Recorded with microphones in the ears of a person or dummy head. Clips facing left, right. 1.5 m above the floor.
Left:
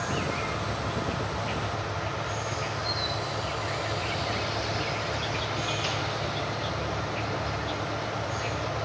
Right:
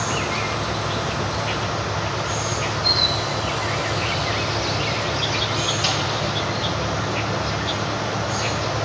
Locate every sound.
0.0 s an insect: 60° right (ahead or behind), 0.9 m